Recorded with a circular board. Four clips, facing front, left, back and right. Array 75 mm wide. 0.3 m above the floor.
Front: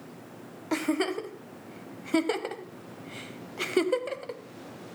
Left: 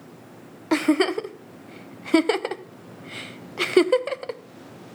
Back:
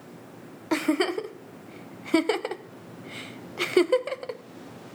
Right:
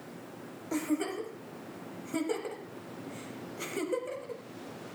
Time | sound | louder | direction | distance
0.7 | a giggle | left 11 dB, back 3 dB | 105° left | 0.6 m